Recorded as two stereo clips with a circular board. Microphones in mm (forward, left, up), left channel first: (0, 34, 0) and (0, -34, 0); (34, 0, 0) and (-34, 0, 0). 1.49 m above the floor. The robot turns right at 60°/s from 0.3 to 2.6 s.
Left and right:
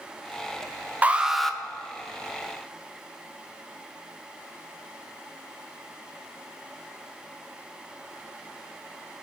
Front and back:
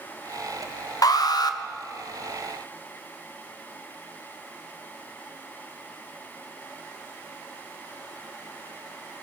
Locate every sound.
1.0 s an alarm: 25° right, 0.9 m; by 1.6 s 10° left, 0.9 m